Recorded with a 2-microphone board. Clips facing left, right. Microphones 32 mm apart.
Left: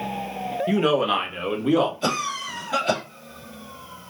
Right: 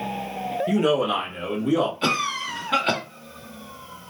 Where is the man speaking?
20° left (ahead or behind), 0.8 m; by 1.9 s 40° left (ahead or behind), 1.5 m.